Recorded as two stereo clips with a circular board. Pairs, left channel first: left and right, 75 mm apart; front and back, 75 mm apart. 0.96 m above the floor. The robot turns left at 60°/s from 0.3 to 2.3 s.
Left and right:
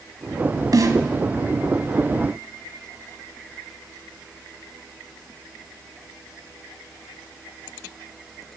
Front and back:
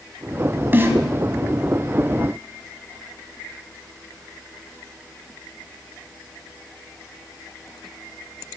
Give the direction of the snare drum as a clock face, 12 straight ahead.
4 o'clock.